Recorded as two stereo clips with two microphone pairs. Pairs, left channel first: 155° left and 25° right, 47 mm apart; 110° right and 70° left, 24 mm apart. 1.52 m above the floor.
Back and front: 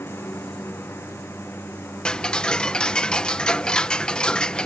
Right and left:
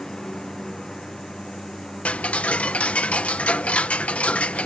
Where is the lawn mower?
175° right.